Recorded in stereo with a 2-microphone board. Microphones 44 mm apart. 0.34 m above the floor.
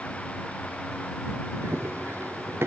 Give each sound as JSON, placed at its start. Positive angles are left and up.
{"t": 1.6, "sound": "running footsteps", "side_deg": -80}